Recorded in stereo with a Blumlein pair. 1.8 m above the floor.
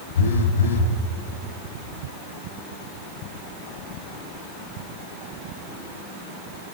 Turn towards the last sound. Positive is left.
turn(degrees=65)